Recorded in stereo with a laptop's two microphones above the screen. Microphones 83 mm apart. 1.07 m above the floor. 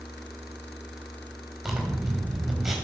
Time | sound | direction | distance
1.6 | a zipper | 5° right (ahead or behind) | 5 m